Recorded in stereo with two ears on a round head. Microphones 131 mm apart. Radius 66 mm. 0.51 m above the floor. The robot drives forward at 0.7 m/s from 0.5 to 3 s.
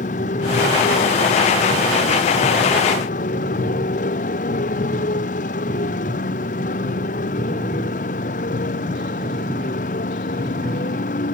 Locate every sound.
0.0 s a motorcycle: 50° left (ahead or behind); by 11.3 s 55° left (ahead or behind)